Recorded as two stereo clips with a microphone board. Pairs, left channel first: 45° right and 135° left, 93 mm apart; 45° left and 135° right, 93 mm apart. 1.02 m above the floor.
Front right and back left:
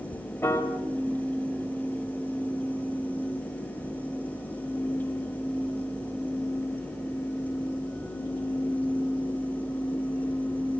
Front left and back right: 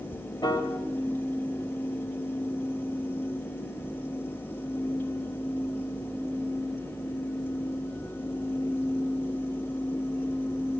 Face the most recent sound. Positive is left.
turn(degrees=15)